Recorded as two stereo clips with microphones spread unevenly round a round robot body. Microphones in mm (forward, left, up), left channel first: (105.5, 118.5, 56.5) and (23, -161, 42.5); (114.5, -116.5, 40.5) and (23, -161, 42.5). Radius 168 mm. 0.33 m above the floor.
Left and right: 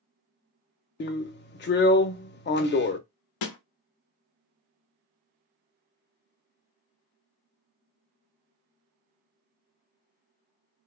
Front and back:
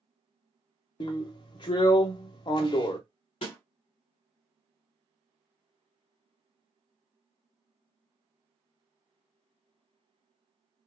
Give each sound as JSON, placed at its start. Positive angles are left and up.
{"t": 1.0, "sound": "a drill", "azimuth_deg": 25, "distance_m": 0.5}
{"t": 3.4, "sound": "a snare drum", "azimuth_deg": 60, "distance_m": 0.7}